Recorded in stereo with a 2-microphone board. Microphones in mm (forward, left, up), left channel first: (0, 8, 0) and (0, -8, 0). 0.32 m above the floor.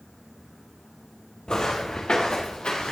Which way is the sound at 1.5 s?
55° left (ahead or behind).